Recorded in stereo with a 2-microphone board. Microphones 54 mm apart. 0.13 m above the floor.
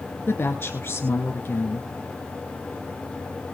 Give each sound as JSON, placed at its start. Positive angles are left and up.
{"t": 0.3, "sound": "a woman speaking", "side_deg": 45, "distance_m": 2.0}